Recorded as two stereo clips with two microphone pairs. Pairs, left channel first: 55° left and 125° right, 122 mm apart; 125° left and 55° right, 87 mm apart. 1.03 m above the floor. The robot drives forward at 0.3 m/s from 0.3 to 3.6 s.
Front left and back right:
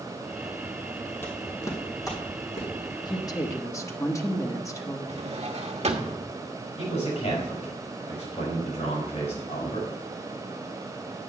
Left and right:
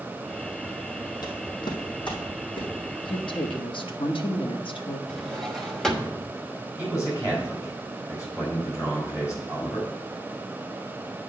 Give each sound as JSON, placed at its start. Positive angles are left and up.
{"t": 1.2, "sound": "footsteps", "azimuth_deg": 120, "distance_m": 1.6}
{"t": 3.0, "sound": "a woman speaking", "azimuth_deg": 110, "distance_m": 0.8}
{"t": 5.1, "sound": "a drawer", "azimuth_deg": -150, "distance_m": 1.0}
{"t": 6.8, "sound": "a man speaking", "azimuth_deg": 70, "distance_m": 4.5}